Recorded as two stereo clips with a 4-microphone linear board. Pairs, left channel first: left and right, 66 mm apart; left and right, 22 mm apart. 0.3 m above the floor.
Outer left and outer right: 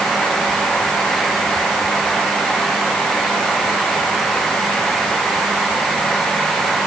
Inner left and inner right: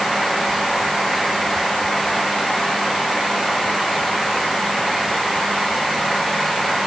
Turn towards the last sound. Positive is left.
No sound to turn to.